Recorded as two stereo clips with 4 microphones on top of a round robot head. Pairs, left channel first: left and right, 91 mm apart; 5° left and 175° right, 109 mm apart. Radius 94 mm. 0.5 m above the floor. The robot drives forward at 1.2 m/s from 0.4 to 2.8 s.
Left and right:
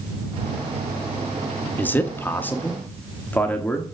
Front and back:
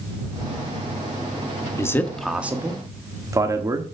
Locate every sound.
1.8 s a man speaking: 35° left, 1.3 m; by 3.8 s 150° left, 1.3 m